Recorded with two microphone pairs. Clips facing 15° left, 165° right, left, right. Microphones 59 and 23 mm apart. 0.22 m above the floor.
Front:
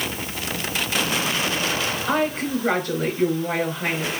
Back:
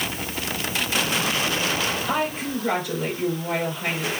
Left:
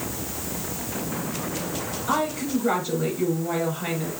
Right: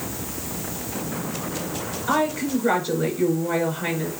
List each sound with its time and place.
2.1 s a woman speaking: 20° right, 3.5 m